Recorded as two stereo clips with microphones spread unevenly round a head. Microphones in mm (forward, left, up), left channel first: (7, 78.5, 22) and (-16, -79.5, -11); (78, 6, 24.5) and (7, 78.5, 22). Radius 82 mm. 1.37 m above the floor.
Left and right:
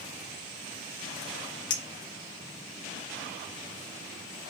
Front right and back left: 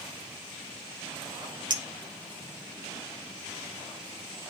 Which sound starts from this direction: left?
A clink, at 1.7 s.